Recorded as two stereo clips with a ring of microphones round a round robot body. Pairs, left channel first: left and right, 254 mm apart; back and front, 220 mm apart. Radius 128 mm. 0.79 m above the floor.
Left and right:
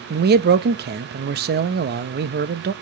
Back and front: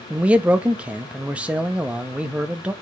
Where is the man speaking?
80° right, 0.6 m.